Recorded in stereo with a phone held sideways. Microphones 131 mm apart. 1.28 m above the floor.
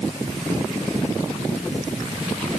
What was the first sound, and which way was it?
Only background noise.